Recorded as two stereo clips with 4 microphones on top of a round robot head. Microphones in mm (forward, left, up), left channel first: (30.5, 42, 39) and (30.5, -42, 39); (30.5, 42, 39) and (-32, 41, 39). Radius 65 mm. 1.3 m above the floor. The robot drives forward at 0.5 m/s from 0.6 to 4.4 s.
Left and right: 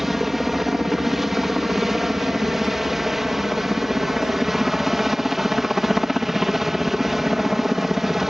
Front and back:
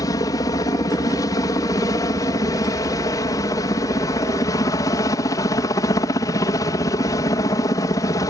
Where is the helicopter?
5° right.